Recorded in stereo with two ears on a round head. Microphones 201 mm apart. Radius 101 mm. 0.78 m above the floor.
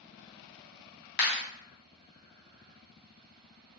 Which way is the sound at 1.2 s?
45° left (ahead or behind).